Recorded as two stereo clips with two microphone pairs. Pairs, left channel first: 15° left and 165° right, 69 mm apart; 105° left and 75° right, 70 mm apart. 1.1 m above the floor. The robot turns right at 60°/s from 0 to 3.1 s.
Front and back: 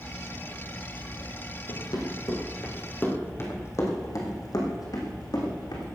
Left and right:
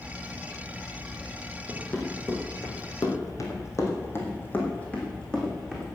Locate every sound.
1.7 s running footsteps: 25° left, 4 m; by 5.9 s 20° left, 4.5 m